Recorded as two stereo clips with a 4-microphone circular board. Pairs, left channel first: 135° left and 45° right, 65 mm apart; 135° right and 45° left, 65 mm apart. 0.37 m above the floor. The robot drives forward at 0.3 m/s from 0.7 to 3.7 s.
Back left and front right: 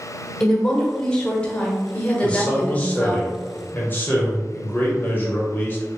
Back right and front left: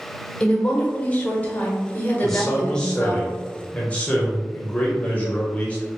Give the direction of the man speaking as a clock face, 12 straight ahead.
7 o'clock.